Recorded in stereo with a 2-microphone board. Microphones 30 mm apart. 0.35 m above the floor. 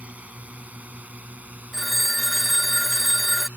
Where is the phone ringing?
5° left (ahead or behind).